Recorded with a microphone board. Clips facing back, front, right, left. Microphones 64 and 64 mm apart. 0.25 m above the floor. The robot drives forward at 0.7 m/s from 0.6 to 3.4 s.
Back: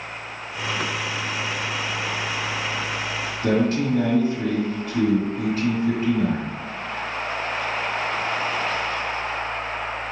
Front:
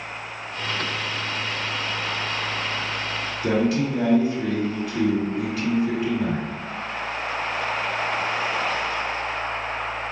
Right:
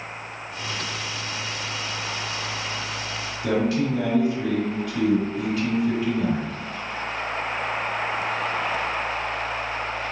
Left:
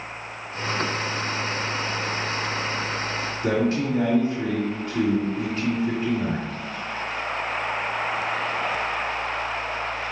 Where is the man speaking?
150° left, 2.0 m.